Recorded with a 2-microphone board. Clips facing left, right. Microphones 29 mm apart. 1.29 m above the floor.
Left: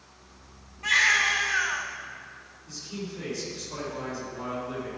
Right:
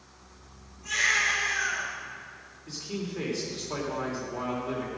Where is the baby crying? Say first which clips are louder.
Left 4 dB; 70° left (ahead or behind), 3 m.